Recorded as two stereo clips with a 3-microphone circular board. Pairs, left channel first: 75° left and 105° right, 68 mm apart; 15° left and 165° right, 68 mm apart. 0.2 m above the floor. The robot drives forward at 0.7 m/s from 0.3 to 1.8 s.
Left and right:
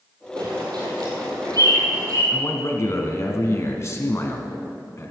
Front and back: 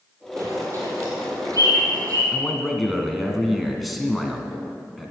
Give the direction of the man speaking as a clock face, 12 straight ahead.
8 o'clock.